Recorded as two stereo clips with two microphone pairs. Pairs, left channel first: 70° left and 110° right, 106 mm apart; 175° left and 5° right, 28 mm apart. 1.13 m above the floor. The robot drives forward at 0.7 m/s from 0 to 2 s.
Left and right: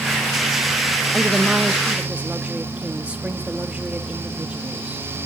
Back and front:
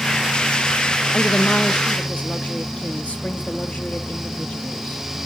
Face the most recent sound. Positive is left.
turn(degrees=175)